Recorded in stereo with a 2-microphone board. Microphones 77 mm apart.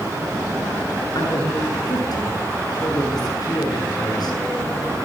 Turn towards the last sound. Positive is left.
turn(degrees=60)  # may be behind; listen again after turning